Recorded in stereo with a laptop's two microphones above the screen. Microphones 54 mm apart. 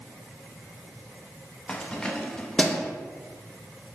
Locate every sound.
1.7 s keys jangling: 15° left (ahead or behind), 0.5 m